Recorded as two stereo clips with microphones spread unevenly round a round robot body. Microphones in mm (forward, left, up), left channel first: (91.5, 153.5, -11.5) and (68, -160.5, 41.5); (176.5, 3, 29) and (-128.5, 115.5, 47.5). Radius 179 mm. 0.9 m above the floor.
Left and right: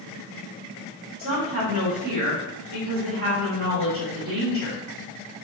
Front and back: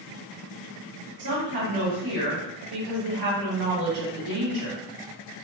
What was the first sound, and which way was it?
A woman speaking, 160° right.